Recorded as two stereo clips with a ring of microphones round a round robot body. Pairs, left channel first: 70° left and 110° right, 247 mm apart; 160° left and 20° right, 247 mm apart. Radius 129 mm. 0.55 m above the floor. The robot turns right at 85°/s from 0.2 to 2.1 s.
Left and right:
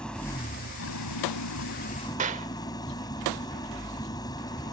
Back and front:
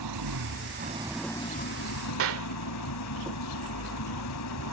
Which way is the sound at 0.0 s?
20° right.